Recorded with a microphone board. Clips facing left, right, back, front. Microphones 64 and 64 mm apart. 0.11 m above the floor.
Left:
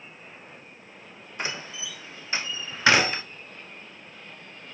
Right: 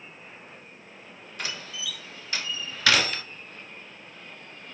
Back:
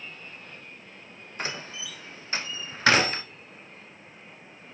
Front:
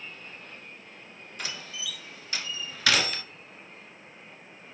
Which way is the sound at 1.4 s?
145° left.